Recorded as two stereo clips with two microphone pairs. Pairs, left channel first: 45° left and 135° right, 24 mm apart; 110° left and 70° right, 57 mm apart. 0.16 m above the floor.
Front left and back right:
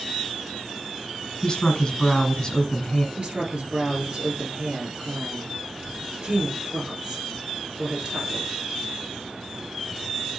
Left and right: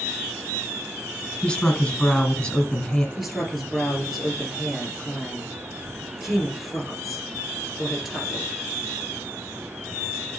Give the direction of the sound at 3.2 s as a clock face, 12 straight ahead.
5 o'clock.